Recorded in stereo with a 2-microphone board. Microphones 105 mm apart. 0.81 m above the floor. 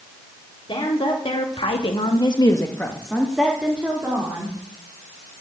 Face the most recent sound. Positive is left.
turn(degrees=-20)  # may be behind; listen again after turning